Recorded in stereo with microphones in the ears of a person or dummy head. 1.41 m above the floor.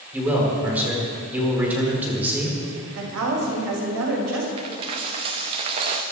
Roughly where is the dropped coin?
Centre.